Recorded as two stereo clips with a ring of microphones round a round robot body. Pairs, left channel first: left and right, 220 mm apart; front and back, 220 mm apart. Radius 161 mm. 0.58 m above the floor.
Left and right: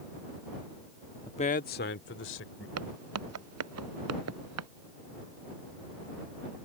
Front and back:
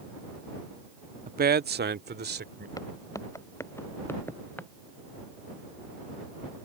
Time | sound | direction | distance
1.3 | a man speaking | 150° left | ?
2.8 | footsteps | 80° right | ?